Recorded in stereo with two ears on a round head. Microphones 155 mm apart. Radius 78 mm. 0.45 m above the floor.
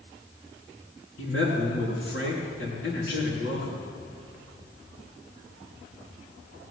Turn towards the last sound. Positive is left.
turn(degrees=65)  # may be behind; listen again after turning